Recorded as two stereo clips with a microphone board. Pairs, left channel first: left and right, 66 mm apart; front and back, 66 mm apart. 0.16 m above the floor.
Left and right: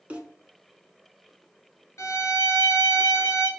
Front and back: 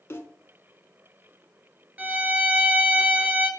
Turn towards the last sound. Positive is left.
turn(degrees=120)